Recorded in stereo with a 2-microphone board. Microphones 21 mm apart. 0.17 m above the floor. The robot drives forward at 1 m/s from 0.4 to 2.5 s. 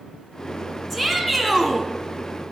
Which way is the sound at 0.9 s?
5° left (ahead or behind).